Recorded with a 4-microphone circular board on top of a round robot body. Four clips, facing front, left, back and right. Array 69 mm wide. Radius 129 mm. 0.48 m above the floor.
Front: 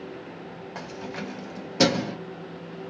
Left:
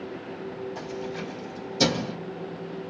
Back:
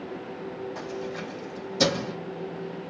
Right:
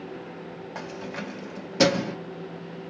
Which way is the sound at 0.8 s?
55° right.